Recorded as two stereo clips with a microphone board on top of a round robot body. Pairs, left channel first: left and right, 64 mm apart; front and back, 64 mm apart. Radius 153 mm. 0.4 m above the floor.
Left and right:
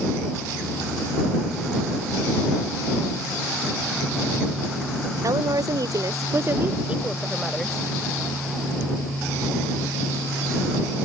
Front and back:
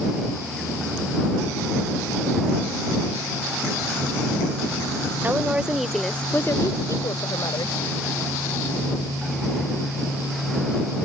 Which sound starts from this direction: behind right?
A woman speaking, at 5.2 s.